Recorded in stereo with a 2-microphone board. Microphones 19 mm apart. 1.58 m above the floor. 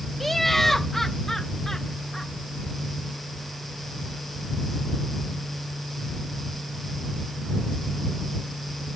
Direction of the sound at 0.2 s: 5° left (ahead or behind).